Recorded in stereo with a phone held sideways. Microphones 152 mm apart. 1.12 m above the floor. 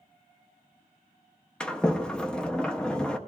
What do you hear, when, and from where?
1.6 s a sliding door: 5° left (ahead or behind), 0.6 m